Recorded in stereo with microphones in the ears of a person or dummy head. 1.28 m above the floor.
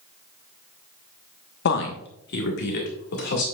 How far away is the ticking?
I don't hear ticking.